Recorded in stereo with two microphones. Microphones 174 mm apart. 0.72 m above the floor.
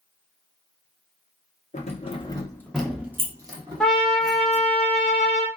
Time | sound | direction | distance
1.7 | keys jangling | 45° left (ahead or behind) | 0.8 m
3.8 | a trumpet | 5° left (ahead or behind) | 0.9 m